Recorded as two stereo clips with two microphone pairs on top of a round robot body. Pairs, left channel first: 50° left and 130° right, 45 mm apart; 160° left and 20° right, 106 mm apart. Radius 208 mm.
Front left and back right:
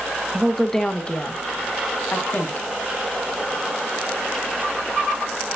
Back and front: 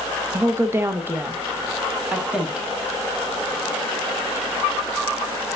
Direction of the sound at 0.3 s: 30° right.